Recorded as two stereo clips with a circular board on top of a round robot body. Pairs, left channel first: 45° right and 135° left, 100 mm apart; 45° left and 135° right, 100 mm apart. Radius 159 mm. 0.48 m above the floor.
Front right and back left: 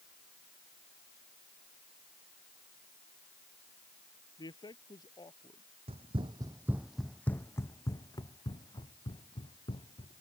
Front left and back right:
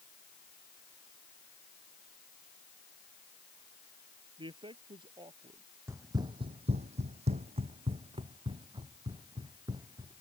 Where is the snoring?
I don't hear snoring.